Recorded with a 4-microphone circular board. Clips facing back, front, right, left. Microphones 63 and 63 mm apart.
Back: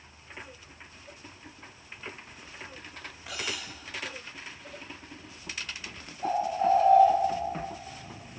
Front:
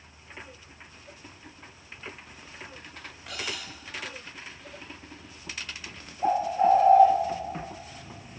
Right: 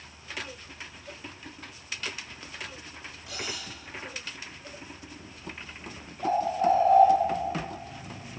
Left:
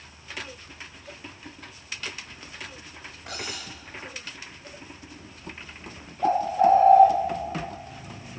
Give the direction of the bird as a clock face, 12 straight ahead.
10 o'clock.